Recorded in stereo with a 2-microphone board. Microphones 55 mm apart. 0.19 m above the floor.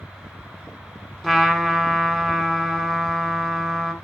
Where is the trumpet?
5° left (ahead or behind), 1.6 m.